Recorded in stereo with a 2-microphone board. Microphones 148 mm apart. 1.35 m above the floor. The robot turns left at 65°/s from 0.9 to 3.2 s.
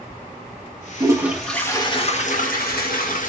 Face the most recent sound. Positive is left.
turn(degrees=65)